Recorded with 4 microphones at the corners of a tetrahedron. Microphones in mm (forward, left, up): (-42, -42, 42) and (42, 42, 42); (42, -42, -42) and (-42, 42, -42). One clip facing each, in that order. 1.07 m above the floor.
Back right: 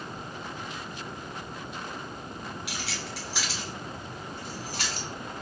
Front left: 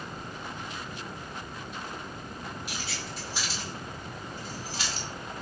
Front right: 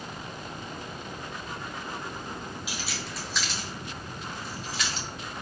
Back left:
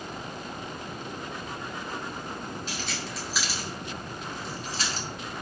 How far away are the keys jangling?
About 1.9 m.